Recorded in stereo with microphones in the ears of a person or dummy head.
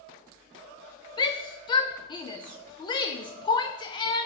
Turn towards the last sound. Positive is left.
turn(degrees=25)  # may be behind; listen again after turning